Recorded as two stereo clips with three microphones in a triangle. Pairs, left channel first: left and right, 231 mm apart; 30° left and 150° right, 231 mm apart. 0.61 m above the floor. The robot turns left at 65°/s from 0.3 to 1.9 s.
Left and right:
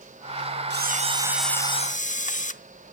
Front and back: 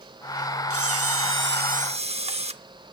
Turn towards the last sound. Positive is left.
turn(degrees=150)